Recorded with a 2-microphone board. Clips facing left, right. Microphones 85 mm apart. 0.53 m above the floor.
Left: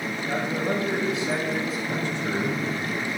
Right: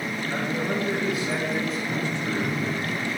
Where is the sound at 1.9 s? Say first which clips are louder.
Even; 60° left (ahead or behind), 2.0 m.